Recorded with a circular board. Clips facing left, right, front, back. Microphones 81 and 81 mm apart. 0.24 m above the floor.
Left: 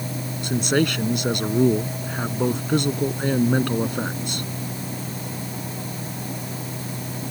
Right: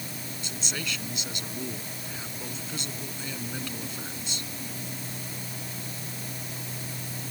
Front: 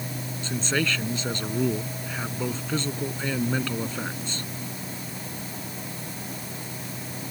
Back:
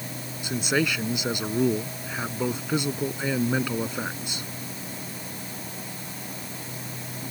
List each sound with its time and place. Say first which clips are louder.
0.4 s a man speaking: left 17 dB, back 2 dB; 105° left